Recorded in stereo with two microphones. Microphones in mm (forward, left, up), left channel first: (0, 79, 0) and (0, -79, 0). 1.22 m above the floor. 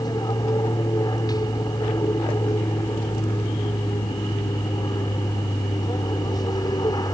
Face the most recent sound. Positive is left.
turn(degrees=25)  # may be behind; listen again after turning